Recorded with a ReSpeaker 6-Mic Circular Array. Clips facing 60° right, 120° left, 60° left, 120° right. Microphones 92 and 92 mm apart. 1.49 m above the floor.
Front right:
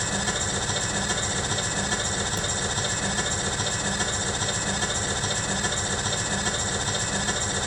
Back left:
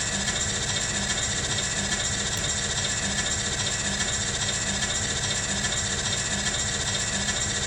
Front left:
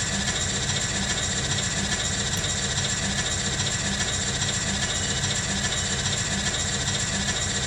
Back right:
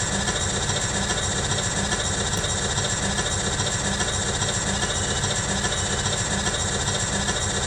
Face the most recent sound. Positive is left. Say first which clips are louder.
# front right 3 dB, back right 3 dB
turn(degrees=-85)